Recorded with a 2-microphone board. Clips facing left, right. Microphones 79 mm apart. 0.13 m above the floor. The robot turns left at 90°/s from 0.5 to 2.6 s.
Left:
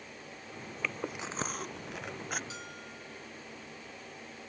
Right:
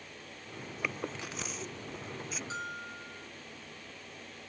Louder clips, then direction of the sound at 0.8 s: Left 1 dB; 15° right (ahead or behind).